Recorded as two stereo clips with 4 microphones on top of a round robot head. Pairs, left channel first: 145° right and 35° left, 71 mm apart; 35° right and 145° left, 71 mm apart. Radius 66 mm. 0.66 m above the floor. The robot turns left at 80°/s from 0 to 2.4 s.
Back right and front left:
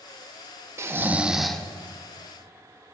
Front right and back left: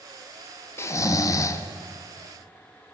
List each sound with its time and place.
0.8 s snoring: straight ahead, 0.7 m; by 1.6 s 65° right, 0.7 m